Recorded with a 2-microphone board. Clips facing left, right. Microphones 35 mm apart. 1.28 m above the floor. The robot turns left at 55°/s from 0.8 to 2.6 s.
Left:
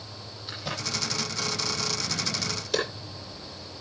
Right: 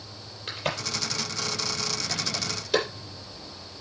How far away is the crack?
About 7.5 m.